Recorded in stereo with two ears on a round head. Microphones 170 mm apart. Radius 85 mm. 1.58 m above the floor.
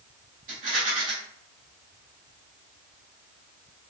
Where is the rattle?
50° right (ahead or behind), 2 m.